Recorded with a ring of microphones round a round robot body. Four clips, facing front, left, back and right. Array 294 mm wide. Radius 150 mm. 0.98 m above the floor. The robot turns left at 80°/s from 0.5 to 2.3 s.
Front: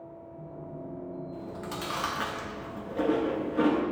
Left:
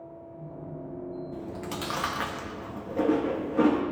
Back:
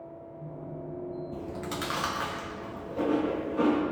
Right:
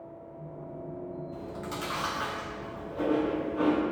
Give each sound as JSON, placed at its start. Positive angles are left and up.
{"t": 1.3, "sound": "chewing", "azimuth_deg": 155, "distance_m": 1.2}